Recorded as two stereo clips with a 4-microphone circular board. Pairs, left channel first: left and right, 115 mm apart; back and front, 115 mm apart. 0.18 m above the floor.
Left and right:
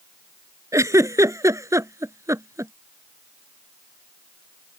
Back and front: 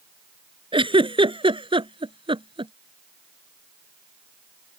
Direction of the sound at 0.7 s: 30° right.